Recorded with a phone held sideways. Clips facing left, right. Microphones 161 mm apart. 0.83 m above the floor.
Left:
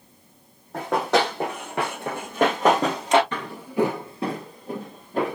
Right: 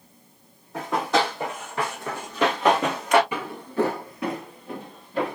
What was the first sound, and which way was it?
Running footsteps, 65° left (ahead or behind).